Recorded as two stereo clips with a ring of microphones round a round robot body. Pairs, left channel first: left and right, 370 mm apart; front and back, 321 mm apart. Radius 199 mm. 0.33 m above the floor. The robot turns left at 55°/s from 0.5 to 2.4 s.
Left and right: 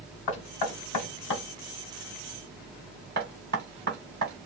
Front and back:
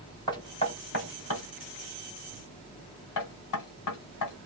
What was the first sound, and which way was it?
Knocking, 75° left.